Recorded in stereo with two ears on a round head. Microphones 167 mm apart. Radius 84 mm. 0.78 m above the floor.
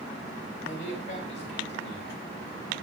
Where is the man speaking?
45° left (ahead or behind), 5 m.